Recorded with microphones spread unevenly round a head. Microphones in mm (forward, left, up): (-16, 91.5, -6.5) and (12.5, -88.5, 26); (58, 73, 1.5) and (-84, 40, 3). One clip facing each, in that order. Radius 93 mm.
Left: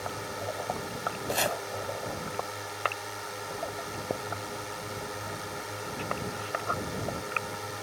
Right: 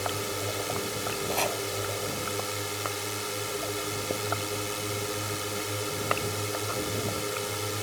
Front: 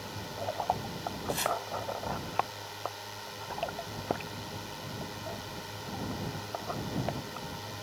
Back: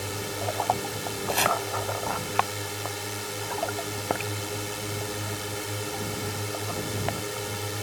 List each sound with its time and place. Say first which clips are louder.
0.0 s a drone: right 4 dB, back 6 dB; 125° right
1.3 s chopping: left 1 dB, back 6 dB; straight behind